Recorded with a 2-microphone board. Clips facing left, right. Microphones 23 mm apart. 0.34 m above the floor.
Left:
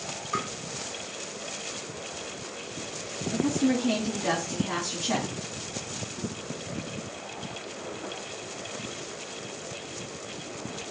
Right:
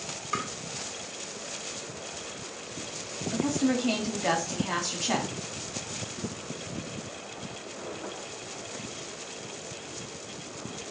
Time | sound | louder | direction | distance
0.3 | tapping | left 1 dB | 35° right (ahead or behind) | 0.8 m
3.3 | a woman speaking | left 1 dB | 40° right (ahead or behind) | 1.4 m